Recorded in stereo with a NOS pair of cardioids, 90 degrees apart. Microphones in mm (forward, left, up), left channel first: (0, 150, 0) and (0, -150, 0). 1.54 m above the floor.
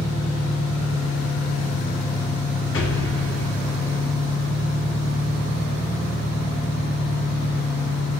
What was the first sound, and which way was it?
An engine running, 5° right.